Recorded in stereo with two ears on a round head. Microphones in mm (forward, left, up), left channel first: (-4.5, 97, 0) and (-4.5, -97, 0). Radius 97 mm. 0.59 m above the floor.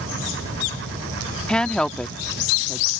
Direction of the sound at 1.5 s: 5° left (ahead or behind).